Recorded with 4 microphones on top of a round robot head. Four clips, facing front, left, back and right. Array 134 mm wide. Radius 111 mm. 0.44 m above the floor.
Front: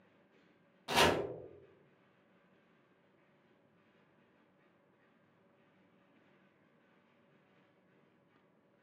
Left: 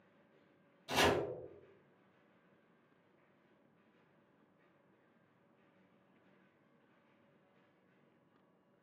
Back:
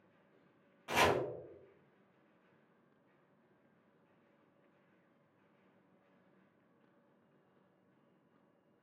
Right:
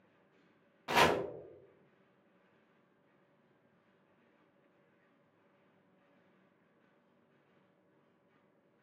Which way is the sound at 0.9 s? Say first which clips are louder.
Right 4 dB, front 1 dB; 75° right.